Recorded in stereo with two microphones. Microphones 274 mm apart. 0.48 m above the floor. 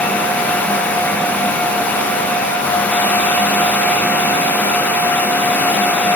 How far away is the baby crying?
No baby crying in this recording.